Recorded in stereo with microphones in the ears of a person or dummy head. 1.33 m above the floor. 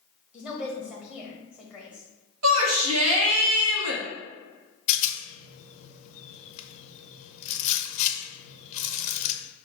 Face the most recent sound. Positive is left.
turn(degrees=45)  # may be behind; listen again after turning